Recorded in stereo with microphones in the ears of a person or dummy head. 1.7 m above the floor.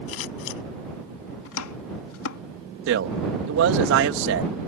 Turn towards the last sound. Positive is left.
turn(degrees=-60)  # may be behind; listen again after turning